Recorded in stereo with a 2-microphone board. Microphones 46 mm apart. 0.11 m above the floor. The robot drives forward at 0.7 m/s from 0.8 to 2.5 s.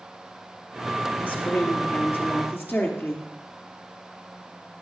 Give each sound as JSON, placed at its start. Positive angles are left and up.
{"t": 1.2, "sound": "a woman speaking", "side_deg": 45, "distance_m": 3.0}